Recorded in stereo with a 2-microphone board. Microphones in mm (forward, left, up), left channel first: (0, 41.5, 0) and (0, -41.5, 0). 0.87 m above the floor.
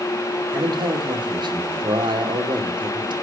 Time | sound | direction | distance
0.5 | a man speaking | 75° right (ahead or behind) | 2 m